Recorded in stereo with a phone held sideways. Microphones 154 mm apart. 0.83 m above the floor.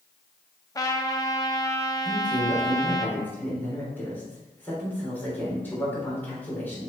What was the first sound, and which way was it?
A trumpet, 25° left (ahead or behind).